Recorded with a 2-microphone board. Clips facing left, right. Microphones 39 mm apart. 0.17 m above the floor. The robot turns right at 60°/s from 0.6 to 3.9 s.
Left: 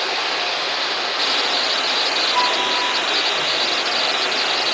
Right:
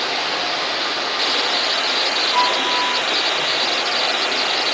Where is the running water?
120° left, 1.6 m; by 4.8 s 40° right, 1.6 m.